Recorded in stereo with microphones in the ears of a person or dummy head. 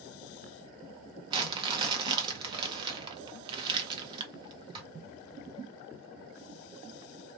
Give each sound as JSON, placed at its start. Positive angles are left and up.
{"t": 1.3, "sound": "crumpling", "side_deg": -20, "distance_m": 0.7}